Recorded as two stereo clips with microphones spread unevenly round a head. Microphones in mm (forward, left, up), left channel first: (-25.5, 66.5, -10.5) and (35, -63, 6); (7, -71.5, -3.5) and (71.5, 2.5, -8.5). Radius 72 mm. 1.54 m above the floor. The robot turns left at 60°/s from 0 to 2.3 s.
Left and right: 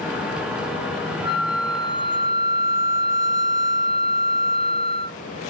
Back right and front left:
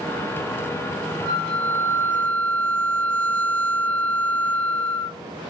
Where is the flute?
110° right, 1.3 m; by 5.2 s 175° right, 1.3 m.